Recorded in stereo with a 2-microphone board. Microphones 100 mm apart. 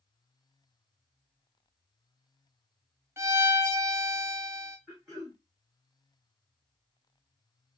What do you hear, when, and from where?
3.2 s a violin: 30° right (ahead or behind), 0.8 m
4.9 s throat clearing: 5° left (ahead or behind), 3.5 m